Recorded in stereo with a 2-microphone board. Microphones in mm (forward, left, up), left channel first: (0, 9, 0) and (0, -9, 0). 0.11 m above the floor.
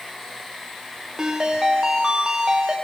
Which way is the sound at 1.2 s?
35° right (ahead or behind).